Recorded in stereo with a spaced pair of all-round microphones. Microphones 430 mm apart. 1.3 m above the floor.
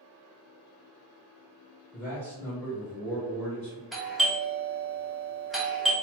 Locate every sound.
1.9 s a man speaking: 5° left (ahead or behind), 1.2 m
3.9 s a doorbell: centre (ahead or behind), 1.0 m